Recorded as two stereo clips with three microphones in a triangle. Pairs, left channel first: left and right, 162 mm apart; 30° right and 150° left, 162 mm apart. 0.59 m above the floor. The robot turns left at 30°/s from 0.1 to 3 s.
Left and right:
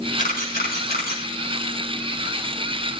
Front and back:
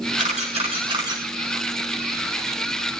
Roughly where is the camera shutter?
Behind left.